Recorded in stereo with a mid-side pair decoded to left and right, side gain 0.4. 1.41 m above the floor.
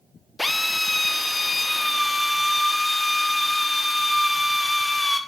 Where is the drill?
20° left, 1.2 m.